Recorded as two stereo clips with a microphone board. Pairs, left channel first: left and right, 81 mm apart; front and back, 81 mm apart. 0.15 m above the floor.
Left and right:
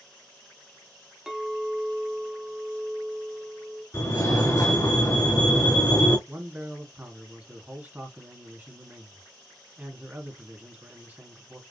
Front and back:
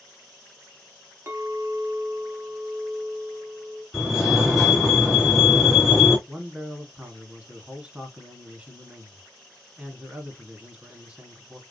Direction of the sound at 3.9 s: 95° left.